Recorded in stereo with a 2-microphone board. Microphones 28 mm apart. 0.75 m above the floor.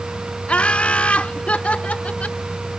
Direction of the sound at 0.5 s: 50° left (ahead or behind).